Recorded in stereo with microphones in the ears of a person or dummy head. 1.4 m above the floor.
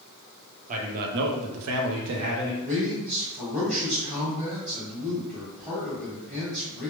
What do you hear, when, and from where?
0.7 s a man speaking: 45° right (ahead or behind), 0.7 m; by 2.5 s 50° right (ahead or behind), 0.7 m
2.6 s a man speaking: 30° right (ahead or behind), 1.4 m